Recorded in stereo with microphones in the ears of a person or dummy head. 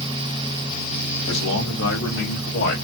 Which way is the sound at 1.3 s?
80° left.